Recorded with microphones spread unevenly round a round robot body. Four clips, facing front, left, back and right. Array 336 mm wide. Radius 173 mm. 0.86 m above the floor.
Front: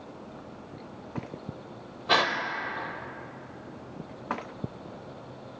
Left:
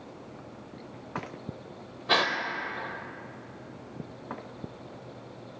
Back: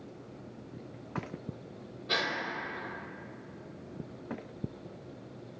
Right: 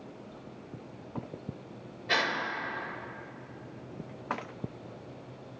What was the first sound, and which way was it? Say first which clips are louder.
A gasp: left 4 dB, front 9 dB; 55° left.